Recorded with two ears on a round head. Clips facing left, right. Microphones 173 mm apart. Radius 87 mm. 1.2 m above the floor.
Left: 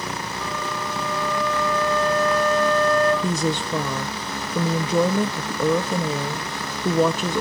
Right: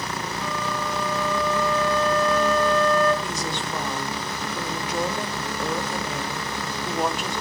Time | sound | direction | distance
0.4 | a flute | 35° right (ahead or behind) | 9.5 m
3.2 | a woman speaking | 70° left (ahead or behind) | 1.5 m